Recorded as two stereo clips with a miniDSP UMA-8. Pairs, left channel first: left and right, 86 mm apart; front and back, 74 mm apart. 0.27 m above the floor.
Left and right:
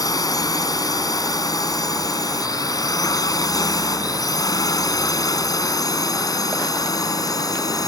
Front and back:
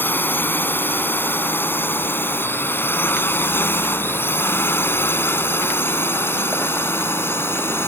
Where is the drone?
60° left; by 7.9 s 55° left.